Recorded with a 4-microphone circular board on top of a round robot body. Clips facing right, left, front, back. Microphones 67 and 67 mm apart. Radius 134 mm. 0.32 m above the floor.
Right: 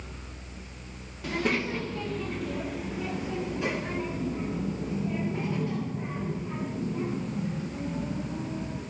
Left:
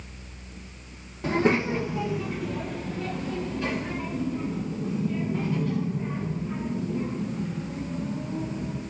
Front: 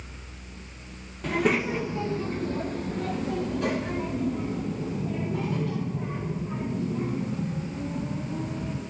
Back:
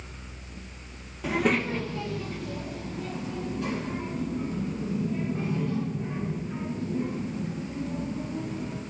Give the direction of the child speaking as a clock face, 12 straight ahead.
9 o'clock.